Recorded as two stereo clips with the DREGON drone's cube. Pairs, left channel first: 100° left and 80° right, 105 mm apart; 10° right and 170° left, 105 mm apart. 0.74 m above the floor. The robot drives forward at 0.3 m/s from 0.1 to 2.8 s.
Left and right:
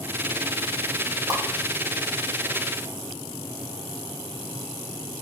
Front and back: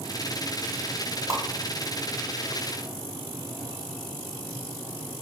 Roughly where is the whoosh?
Behind right.